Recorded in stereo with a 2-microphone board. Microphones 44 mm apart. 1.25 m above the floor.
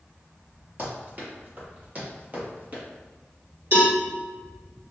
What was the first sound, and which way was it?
Running footsteps, 45° right (ahead or behind).